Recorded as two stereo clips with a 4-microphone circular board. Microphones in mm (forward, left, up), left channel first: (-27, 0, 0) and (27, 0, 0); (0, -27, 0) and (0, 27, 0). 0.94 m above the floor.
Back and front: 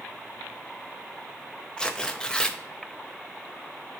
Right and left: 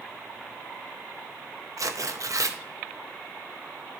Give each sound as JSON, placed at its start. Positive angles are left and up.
{"t": 1.8, "sound": "tearing paper", "azimuth_deg": 105, "distance_m": 0.6}